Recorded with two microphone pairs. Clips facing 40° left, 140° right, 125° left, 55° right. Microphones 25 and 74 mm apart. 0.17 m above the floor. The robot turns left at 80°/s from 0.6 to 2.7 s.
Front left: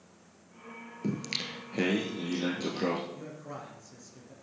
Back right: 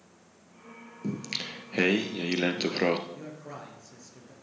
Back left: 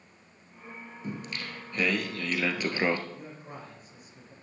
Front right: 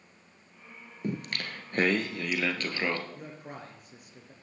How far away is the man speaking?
About 3 m.